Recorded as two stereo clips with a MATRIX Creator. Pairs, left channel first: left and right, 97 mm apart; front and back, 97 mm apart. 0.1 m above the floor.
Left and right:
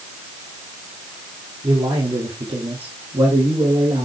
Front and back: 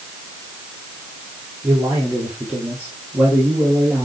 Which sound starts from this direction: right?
A man speaking, at 1.6 s.